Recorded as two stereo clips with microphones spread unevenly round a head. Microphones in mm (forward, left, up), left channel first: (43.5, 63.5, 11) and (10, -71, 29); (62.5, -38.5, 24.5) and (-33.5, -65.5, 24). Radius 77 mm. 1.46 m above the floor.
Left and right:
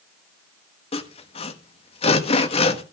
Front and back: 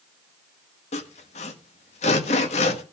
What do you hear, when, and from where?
0.9 s sawing: 30° left, 1.4 m